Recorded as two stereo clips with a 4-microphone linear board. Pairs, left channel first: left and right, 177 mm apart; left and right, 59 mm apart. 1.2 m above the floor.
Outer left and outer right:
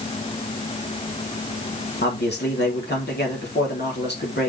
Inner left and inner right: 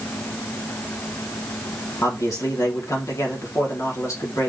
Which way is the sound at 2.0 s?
75° left (ahead or behind).